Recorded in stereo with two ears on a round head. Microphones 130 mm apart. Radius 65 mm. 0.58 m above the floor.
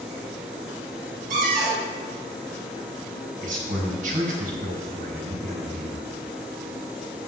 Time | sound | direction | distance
1.3 | a cupboard door | 65° right (ahead or behind) | 4 m
3.4 | a man speaking | 60° right (ahead or behind) | 4 m